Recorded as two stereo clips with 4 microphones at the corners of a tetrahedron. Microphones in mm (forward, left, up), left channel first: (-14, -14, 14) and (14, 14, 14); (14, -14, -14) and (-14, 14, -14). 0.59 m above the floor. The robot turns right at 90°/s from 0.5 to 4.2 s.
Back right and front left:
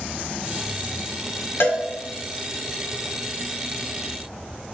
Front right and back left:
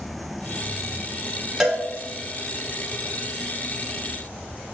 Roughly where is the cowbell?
Behind right.